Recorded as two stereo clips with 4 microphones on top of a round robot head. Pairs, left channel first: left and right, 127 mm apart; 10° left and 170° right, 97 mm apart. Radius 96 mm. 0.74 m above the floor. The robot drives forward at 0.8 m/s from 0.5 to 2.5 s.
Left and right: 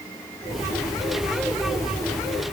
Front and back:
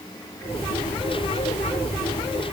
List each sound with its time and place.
Only background noise.